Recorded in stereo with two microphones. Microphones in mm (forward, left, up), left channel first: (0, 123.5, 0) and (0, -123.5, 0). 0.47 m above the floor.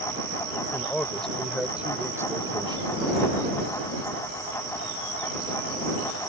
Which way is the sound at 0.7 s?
10° left (ahead or behind).